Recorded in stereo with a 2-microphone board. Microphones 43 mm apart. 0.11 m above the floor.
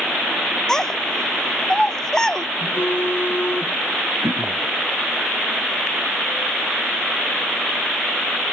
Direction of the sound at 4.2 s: 55° right (ahead or behind).